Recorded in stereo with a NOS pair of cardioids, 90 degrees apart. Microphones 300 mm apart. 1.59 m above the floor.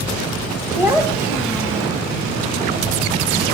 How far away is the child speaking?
About 1.7 m.